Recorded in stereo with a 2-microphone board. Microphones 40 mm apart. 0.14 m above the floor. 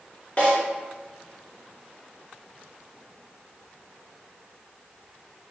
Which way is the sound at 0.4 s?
30° left (ahead or behind).